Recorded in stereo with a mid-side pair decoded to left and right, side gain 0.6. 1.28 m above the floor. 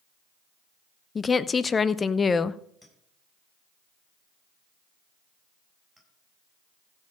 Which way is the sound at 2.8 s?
Straight ahead.